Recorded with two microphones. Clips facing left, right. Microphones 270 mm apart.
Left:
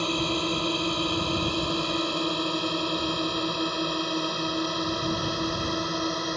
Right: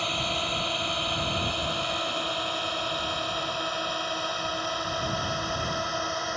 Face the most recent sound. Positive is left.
turn(degrees=45)  # may be behind; listen again after turning